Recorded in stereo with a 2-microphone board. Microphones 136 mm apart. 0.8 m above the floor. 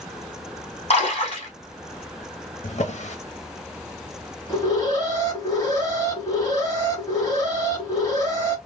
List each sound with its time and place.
0.9 s a splash: 50° left (ahead or behind), 2.0 m
2.6 s a drawer: 55° left (ahead or behind), 0.9 m
4.5 s an alarm: 25° left (ahead or behind), 1.7 m